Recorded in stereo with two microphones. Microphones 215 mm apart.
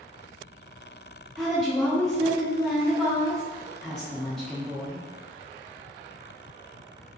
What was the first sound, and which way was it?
A woman speaking, 5° left (ahead or behind).